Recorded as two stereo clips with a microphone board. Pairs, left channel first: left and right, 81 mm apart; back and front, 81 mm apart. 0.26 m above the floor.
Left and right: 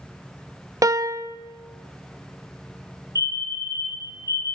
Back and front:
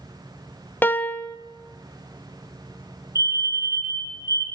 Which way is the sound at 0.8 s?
120° right.